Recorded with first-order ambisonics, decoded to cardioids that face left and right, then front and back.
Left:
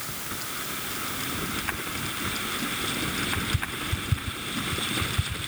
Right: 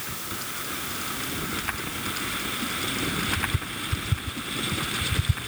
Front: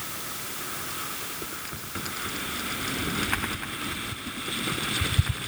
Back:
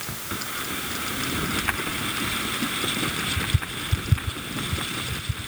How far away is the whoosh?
No whoosh in this recording.